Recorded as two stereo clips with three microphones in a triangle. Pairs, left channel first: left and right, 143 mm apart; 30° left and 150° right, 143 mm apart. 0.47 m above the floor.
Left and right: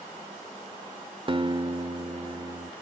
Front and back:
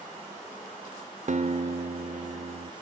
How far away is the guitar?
About 0.7 m.